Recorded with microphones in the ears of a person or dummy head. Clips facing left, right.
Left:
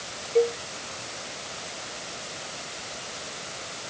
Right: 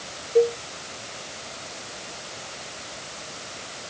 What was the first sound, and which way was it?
A cowbell, 15° right (ahead or behind).